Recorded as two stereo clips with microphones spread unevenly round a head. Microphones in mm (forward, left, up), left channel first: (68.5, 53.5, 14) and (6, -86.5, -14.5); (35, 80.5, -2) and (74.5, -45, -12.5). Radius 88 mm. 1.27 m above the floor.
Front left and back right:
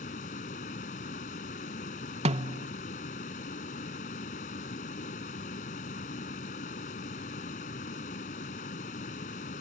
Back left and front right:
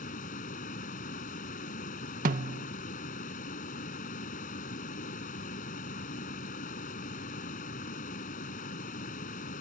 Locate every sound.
0.0 s a fan: 105° left
2.2 s a snare drum: 75° right